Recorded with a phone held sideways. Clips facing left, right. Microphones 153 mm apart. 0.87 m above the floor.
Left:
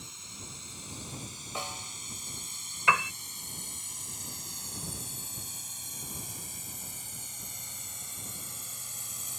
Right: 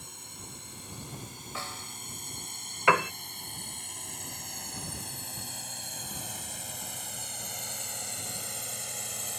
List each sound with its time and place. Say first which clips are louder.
0.0 s a drone: right 1 dB; 55° right (ahead or behind); by 9.4 s 70° right (ahead or behind)
1.6 s a snare drum: left 2 dB; 15° left (ahead or behind)
2.9 s a piano: right 5 dB; 65° right (ahead or behind)